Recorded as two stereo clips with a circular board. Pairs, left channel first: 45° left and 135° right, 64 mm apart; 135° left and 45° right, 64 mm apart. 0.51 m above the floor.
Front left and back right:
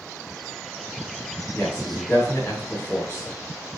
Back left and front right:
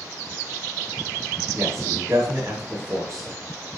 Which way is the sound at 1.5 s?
5° right.